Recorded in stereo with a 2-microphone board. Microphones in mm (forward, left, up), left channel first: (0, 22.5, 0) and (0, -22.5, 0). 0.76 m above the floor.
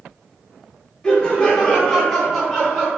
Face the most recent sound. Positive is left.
turn(degrees=-20)  # may be behind; listen again after turning